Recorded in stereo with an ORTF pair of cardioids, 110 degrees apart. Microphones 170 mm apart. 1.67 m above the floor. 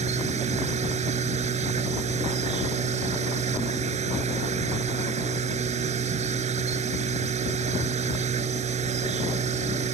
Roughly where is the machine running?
Ahead right.